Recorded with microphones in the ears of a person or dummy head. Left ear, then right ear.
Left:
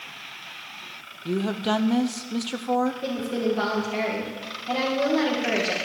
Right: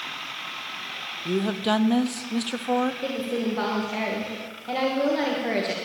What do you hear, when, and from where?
1.2 s a woman speaking: 5° right (ahead or behind), 0.7 m
3.0 s a woman speaking: 10° right (ahead or behind), 2.5 m